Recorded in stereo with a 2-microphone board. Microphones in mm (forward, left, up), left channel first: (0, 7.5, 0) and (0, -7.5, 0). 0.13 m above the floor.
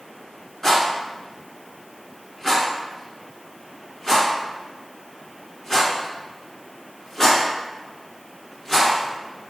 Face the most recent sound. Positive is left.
turn(degrees=35)  # may be behind; listen again after turning